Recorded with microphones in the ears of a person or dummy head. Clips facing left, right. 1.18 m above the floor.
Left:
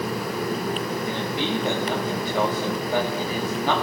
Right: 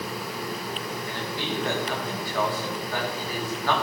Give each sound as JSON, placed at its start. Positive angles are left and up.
{"t": 1.1, "sound": "a man speaking", "side_deg": 20, "distance_m": 3.0}